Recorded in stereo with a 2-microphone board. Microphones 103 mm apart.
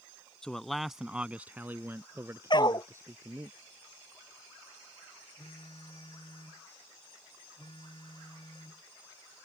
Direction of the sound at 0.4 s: 5° left (ahead or behind).